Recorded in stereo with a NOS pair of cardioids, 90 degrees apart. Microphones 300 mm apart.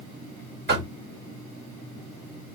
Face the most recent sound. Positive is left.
turn(degrees=-35)